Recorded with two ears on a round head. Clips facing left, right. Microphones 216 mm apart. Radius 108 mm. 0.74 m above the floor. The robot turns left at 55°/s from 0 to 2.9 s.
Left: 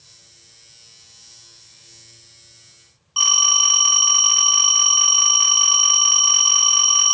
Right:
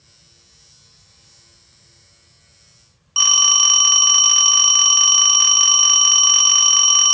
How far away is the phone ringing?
About 1.0 m.